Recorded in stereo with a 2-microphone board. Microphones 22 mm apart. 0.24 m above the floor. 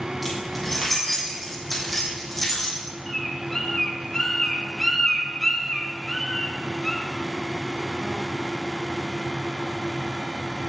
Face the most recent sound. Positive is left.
turn(degrees=20)  # may be behind; listen again after turning